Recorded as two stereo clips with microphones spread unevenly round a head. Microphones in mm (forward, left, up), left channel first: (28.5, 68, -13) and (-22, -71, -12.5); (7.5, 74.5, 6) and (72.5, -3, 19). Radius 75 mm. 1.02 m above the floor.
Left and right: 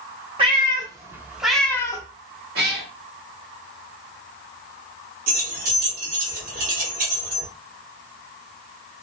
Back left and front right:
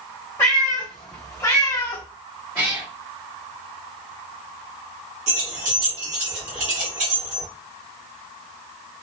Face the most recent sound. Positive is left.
turn(degrees=-75)